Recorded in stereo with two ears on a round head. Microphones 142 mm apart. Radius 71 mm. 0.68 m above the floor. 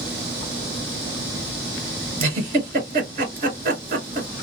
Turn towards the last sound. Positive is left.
turn(degrees=-55)  # may be behind; listen again after turning